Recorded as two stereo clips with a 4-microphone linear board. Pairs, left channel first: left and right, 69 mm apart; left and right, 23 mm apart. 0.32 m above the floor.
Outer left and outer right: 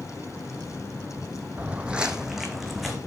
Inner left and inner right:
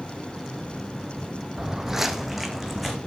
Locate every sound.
1.6 s footsteps: 25° right (ahead or behind), 0.5 m; by 3.0 s centre (ahead or behind), 1.2 m